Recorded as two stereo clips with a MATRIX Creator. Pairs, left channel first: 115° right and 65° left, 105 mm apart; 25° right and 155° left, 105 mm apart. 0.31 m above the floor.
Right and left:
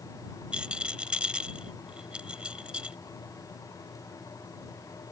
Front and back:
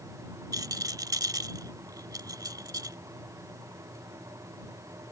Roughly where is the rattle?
Behind left.